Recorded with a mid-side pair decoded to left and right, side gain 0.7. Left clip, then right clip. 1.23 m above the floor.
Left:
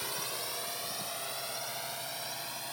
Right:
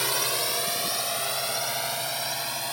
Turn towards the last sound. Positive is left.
turn(degrees=-40)